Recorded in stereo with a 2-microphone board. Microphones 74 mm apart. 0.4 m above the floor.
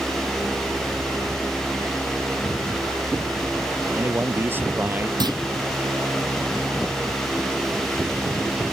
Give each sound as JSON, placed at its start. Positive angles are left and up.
{"t": 3.9, "sound": "a man speaking", "side_deg": -30}
{"t": 5.2, "sound": "a clunk", "side_deg": -70}